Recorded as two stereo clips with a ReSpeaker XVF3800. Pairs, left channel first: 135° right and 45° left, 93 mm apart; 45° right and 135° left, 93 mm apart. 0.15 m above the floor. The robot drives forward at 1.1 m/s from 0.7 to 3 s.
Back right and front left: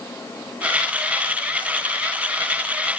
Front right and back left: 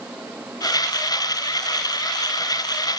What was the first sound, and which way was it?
Only background noise.